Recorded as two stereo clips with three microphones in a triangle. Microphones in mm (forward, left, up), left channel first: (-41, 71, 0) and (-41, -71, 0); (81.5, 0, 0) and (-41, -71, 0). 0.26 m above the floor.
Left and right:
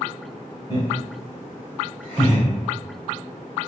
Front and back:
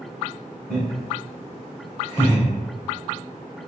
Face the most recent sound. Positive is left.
turn(degrees=0)